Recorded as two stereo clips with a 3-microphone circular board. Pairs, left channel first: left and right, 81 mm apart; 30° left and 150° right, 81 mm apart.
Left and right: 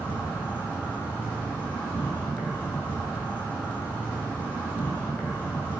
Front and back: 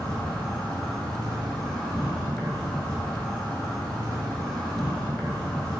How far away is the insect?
About 0.9 m.